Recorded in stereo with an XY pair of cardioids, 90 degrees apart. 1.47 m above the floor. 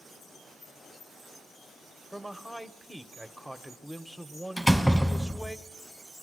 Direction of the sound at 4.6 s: Straight ahead.